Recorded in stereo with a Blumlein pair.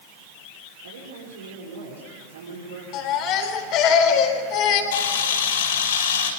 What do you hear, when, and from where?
0.8 s a woman speaking: 65° right, 6 m
2.9 s a baby crying: 40° left, 4 m
4.9 s a camera shutter: 60° left, 6 m